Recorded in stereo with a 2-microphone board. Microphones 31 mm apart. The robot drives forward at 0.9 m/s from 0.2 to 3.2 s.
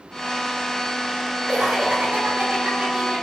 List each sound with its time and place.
1.5 s laughter: 65° right (ahead or behind), 3.5 m; by 3.2 s 45° right (ahead or behind), 4.5 m